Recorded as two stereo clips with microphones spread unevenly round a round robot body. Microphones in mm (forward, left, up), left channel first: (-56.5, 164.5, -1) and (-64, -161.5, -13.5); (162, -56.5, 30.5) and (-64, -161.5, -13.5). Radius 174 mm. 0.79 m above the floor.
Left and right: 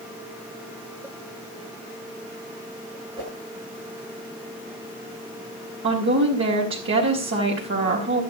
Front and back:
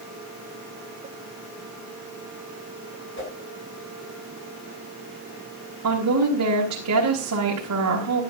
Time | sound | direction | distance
3.2 | a whoosh | 15° right | 7 m
5.8 | a woman speaking | 145° right | 4 m